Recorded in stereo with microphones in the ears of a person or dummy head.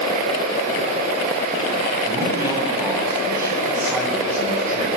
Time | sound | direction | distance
2.0 | a man speaking | 15° right (ahead or behind) | 9.5 m